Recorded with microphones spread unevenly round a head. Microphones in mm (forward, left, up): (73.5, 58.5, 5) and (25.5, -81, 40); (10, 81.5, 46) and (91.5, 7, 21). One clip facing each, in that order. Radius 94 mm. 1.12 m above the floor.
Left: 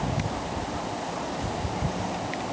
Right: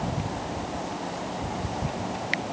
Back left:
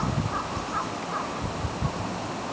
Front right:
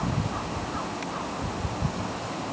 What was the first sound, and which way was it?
Only background noise.